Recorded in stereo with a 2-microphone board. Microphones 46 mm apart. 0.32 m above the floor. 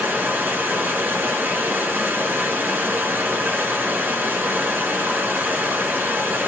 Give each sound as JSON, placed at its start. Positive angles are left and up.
{"t": 0.0, "sound": "running water", "side_deg": -45, "distance_m": 1.4}